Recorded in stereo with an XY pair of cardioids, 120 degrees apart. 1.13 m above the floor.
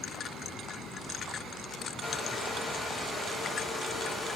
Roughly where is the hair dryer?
Ahead left.